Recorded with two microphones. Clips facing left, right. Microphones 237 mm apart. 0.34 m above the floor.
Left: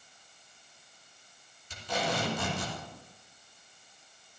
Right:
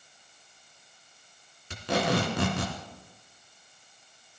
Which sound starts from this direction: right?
Tape being pulled, at 1.7 s.